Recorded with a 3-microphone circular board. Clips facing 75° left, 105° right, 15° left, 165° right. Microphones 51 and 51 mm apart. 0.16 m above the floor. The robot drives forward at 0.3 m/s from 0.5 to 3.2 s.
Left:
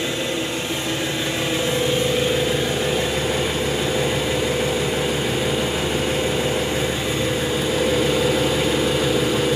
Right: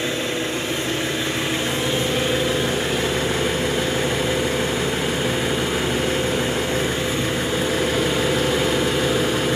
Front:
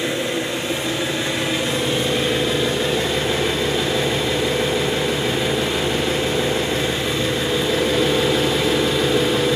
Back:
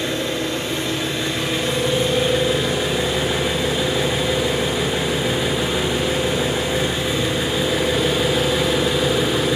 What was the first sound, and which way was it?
An engine running, 65° right.